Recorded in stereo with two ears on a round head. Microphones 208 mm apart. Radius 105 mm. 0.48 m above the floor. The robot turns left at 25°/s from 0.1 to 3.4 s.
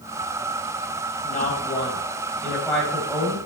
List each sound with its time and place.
1.2 s a woman speaking: 40° left, 3 m; by 3.4 s 15° right, 3 m